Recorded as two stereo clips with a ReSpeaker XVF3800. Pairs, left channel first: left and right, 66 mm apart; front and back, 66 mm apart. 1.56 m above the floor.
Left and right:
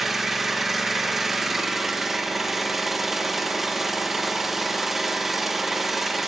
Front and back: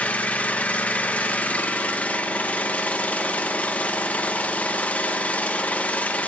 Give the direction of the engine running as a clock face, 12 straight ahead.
12 o'clock.